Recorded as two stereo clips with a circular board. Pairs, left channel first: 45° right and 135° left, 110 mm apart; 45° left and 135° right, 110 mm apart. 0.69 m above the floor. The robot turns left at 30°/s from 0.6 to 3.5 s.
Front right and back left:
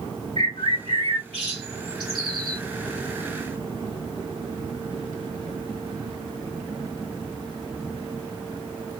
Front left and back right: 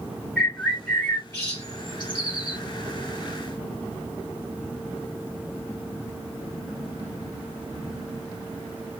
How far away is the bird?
About 2 m.